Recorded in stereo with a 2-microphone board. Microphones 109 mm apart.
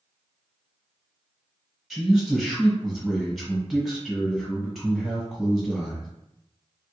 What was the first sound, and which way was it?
A man speaking, centre (ahead or behind).